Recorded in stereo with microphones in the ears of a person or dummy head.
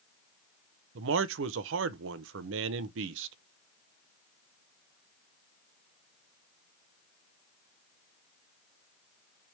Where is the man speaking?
80° right, 0.6 m.